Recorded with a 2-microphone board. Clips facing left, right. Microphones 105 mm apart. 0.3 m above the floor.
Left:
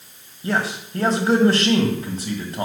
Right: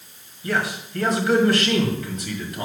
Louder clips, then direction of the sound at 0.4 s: Left 1 dB; 35° left (ahead or behind).